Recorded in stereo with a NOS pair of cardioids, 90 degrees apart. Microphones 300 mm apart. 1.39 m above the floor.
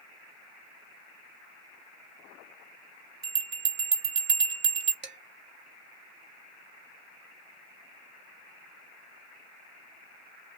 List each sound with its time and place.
3.2 s a bell: 40° right, 1.9 m
5.0 s dishes clattering: 35° right, 1.8 m